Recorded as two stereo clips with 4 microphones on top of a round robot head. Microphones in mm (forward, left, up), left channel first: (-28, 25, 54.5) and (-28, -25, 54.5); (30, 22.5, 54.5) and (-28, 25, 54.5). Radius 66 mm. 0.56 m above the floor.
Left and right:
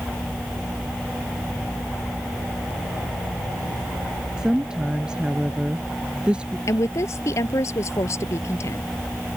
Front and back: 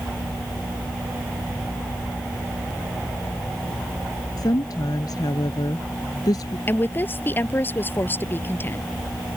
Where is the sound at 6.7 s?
55° left.